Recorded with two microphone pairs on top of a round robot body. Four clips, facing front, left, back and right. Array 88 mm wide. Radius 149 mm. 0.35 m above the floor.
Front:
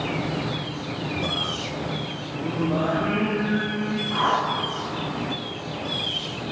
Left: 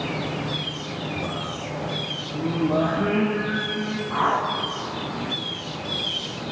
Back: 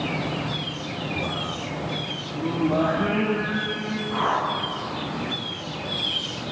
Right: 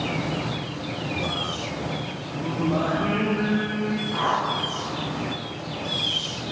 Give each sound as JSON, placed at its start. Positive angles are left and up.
{"t": 2.3, "sound": "singing", "azimuth_deg": 105, "distance_m": 7.5}
{"t": 4.1, "sound": "a whoosh", "azimuth_deg": 90, "distance_m": 5.0}